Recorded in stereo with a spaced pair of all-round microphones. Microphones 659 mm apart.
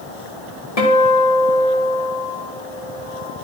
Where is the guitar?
55° left (ahead or behind), 1.4 m.